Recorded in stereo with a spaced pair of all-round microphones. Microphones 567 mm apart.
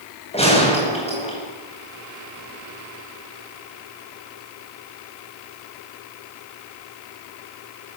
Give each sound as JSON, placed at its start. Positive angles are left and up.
{"t": 0.3, "sound": "a gunshot", "side_deg": 10, "distance_m": 10.0}